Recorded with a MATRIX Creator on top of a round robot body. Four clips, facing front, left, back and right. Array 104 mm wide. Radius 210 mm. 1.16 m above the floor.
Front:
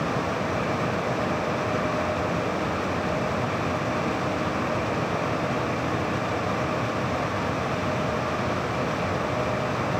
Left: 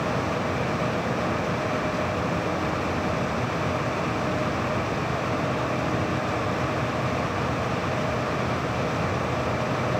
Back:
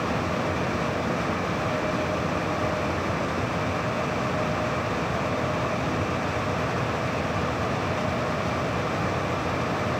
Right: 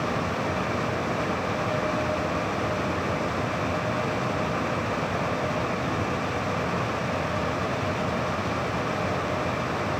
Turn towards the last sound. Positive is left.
No sound to turn to.